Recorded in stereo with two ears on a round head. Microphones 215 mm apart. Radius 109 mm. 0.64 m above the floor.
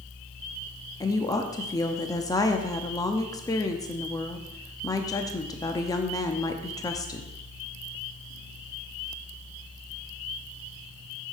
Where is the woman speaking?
15° left (ahead or behind), 0.6 m.